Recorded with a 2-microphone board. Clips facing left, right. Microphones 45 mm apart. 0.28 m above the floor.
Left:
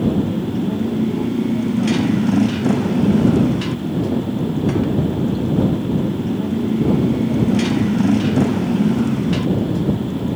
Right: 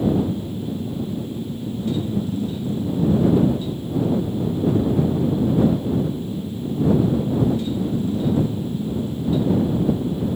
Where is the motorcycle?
90° left.